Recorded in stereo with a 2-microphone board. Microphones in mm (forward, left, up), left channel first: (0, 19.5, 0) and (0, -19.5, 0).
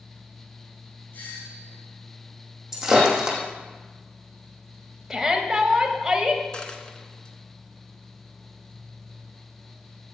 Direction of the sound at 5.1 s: 10° right (ahead or behind).